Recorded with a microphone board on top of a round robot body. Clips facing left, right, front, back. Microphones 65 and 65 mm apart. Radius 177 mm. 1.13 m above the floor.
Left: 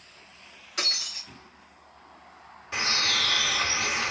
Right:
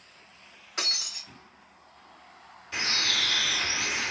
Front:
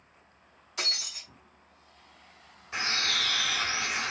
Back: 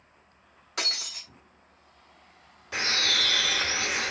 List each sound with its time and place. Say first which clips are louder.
0.8 s breaking glass: left 2 dB, back 2 dB; 160° right, 0.9 m
2.7 s a bird: left 2 dB, back 2 dB; 160° left, 1.7 m